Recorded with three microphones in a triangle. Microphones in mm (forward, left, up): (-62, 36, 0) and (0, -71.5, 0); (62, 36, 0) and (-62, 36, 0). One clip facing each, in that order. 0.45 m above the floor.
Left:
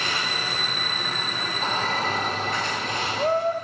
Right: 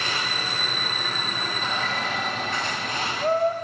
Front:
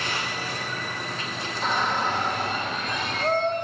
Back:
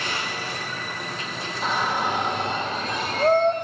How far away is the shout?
About 1.5 m.